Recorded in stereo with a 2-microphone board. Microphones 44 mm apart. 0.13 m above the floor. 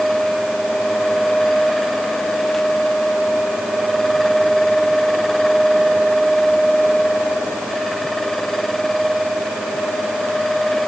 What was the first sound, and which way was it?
Only background noise.